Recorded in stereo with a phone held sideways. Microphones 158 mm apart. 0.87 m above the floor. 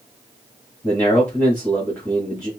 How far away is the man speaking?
About 1.8 m.